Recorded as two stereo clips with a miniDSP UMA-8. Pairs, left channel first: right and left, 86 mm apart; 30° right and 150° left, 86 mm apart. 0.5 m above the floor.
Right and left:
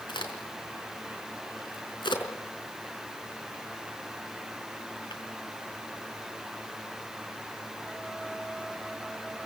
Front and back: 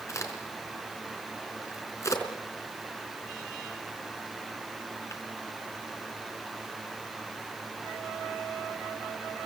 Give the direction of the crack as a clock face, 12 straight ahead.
3 o'clock.